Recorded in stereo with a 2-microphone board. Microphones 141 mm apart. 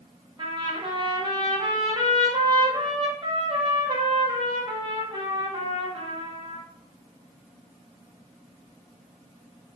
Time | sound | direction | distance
0.4 | a trumpet | 35° right (ahead or behind) | 2.0 m